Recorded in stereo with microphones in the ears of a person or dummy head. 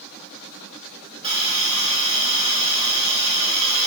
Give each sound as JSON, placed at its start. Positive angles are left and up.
{"t": 1.2, "sound": "a hiss", "side_deg": -25, "distance_m": 0.7}